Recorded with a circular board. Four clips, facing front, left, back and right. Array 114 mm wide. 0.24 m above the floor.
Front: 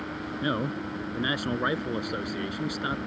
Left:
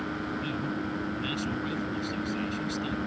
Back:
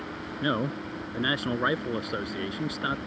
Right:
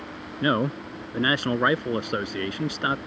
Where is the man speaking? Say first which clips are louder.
Right 7 dB, back 1 dB; 100° right.